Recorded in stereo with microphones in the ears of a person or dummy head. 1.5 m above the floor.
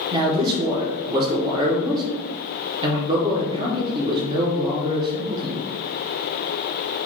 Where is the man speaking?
25° right (ahead or behind), 0.7 m.